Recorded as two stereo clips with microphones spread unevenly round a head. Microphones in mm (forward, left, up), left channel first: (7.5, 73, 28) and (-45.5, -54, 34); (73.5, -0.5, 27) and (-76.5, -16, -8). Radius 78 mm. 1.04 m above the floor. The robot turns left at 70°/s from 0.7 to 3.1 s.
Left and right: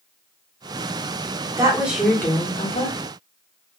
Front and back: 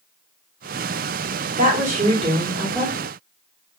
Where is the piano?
I don't hear a piano.